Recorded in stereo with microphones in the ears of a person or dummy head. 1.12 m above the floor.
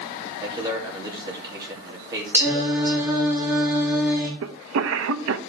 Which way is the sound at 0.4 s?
15° right (ahead or behind).